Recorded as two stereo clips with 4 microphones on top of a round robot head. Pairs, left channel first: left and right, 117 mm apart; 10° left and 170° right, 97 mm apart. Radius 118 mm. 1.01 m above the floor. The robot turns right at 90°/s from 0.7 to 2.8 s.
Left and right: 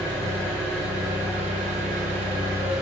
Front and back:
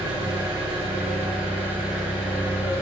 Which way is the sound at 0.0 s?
165° left.